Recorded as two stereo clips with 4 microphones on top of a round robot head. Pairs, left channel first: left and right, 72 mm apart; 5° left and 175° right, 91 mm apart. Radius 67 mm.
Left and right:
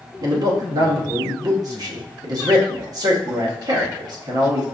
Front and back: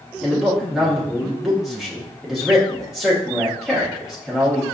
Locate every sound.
0.2 s a man speaking: 90° right, 1.2 m